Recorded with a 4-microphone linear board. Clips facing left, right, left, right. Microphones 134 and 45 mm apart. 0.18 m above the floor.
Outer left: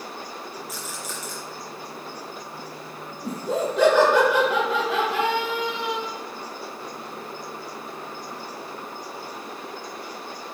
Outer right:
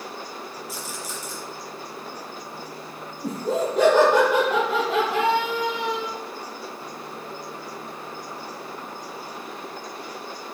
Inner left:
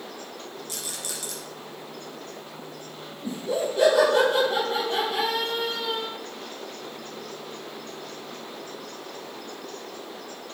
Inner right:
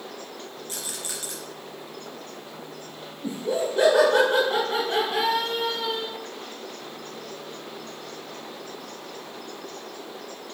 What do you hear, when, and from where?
0.7 s a rattle: 30° right (ahead or behind), 2.5 m
3.2 s laughter: 40° right (ahead or behind), 2.5 m